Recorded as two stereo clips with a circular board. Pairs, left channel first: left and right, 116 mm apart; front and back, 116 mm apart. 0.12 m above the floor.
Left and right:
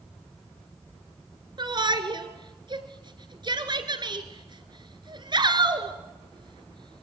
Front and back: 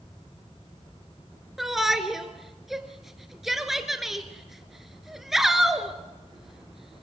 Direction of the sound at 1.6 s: 95° right.